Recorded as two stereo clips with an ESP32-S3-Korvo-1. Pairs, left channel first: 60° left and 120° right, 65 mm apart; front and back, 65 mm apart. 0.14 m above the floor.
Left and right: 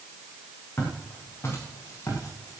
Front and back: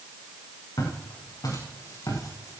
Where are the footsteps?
5° left, 7 m; by 2.6 s 25° left, 6 m.